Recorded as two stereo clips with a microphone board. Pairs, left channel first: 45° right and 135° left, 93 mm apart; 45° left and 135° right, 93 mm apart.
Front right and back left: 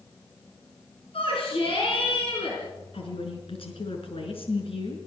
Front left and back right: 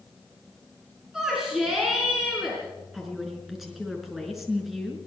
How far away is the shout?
About 5 m.